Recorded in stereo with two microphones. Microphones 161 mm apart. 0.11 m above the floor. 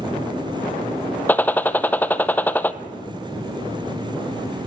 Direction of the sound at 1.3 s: 10° left (ahead or behind).